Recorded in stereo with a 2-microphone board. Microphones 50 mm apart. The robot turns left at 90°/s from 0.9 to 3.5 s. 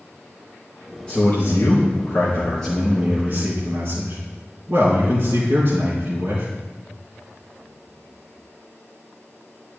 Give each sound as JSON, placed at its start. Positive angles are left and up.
{"t": 1.1, "sound": "a man speaking", "azimuth_deg": 160, "distance_m": 4.0}